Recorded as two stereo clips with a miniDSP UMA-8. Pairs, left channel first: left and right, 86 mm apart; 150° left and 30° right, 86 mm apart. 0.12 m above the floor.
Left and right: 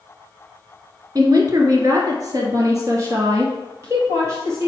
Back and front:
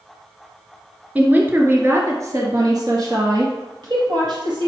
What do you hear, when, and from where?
1.1 s a woman speaking: 95° right, 1.4 m; by 4.7 s 35° right, 2.5 m